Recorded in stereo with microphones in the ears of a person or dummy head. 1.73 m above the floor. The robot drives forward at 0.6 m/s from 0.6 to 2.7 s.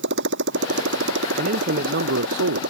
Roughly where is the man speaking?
Right.